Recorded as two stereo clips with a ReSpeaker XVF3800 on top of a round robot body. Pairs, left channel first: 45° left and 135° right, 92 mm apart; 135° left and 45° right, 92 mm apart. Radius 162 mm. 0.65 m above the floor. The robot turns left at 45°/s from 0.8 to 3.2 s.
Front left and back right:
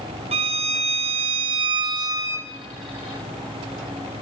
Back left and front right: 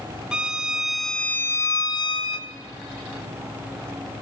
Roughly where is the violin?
Behind right.